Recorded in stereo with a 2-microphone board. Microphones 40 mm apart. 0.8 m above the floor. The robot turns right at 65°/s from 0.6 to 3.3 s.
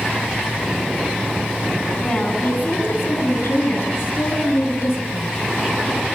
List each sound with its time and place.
2.0 s a woman speaking: 15° left, 8.5 m; by 5.4 s 100° left, 8.5 m